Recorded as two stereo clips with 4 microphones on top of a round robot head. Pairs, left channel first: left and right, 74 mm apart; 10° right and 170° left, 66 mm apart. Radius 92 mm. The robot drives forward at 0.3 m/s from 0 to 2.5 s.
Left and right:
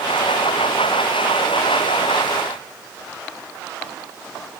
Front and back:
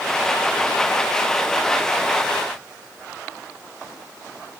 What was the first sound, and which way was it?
Only background noise.